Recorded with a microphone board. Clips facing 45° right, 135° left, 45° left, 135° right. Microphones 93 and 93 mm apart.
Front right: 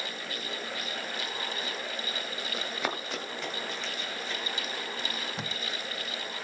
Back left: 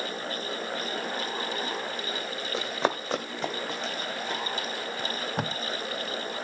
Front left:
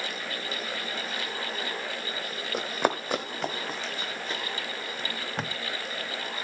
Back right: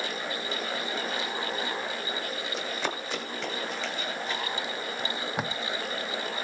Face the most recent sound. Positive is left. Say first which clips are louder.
# back left 5 dB, back right 3 dB
turn(degrees=150)